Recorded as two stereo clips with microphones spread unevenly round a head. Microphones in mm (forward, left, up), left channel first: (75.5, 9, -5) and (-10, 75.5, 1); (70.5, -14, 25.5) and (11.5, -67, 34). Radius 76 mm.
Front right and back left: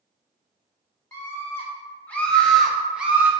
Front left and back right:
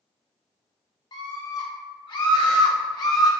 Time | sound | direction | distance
1.1 | a scream | 25° left | 2.5 m